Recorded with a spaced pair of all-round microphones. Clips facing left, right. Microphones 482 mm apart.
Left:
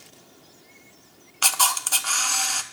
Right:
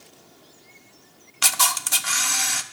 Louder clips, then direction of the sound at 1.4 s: Left 1 dB; 40° right (ahead or behind).